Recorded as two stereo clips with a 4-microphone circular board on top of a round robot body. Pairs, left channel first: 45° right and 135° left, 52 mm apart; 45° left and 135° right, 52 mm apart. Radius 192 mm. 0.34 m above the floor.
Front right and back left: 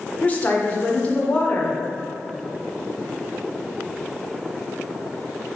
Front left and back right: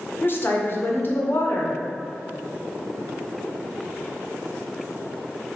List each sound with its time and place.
0.2 s a woman speaking: 10° left, 1.9 m